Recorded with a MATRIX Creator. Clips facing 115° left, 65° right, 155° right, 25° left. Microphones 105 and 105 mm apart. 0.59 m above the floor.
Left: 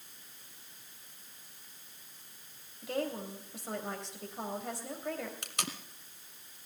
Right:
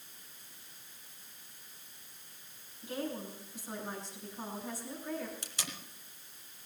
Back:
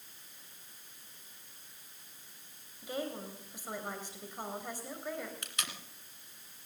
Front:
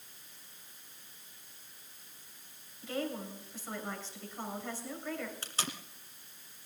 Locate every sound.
2.8 s a woman speaking: 125° left, 3 m
5.4 s tape being pulled: 80° left, 1.8 m